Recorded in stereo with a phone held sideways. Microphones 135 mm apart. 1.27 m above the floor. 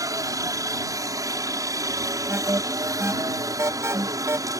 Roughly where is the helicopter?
Right.